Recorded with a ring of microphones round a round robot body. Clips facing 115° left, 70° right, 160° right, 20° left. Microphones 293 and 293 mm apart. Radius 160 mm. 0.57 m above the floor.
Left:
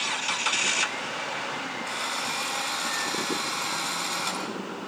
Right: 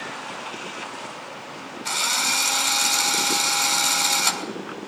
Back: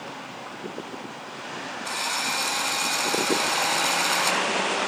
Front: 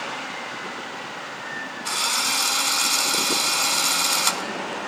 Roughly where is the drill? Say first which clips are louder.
Right 2 dB, front 1 dB; ahead right.